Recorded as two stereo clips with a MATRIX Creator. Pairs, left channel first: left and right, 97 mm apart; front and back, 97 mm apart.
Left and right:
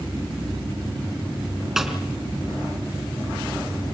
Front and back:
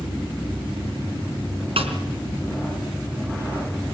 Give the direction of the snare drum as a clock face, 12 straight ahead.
6 o'clock.